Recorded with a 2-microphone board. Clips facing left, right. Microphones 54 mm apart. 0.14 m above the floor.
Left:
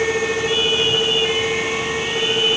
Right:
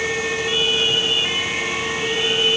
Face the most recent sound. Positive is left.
No sound to turn to.